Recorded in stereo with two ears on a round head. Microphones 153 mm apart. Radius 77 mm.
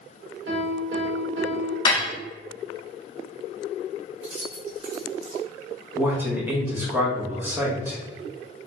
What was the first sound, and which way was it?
A piano, 75° right (ahead or behind).